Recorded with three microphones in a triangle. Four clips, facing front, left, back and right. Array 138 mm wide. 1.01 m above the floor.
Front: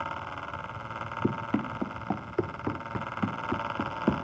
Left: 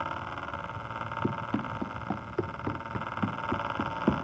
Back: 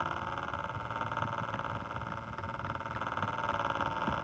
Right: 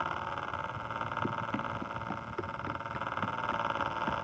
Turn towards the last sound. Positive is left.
turn(degrees=45)